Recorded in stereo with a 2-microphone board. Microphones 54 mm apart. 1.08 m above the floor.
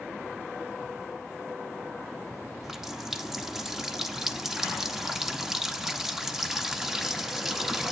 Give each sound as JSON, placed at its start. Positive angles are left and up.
{"t": 2.6, "sound": "a running tap", "side_deg": -10, "distance_m": 0.8}